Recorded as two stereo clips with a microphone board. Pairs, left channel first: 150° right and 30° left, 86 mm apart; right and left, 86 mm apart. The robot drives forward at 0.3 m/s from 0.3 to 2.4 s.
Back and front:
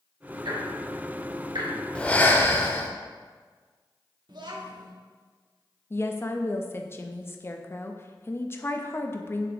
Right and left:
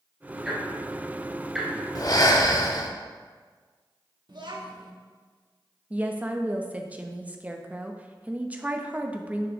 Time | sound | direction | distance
0.5 | ticking | 5° left | 2 m
1.9 | breathing | 80° right | 0.7 m
4.3 | a child speaking | 60° left | 1.2 m
5.9 | a woman speaking | 160° left | 0.6 m